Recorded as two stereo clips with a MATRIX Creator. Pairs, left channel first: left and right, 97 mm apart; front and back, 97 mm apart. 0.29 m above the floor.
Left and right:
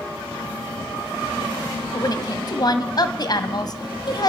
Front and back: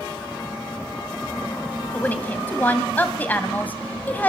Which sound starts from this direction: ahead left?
A woman speaking, at 1.9 s.